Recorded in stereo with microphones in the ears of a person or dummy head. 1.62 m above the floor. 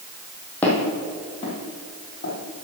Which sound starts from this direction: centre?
Footsteps, at 0.6 s.